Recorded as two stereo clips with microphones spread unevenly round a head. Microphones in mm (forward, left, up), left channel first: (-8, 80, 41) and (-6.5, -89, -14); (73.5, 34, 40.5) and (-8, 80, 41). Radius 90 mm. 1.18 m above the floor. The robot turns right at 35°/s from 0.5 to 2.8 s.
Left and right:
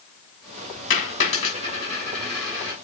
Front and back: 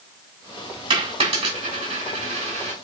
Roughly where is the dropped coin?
Behind left.